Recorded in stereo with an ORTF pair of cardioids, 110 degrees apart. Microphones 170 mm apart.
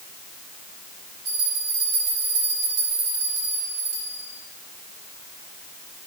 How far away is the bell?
About 2.5 m.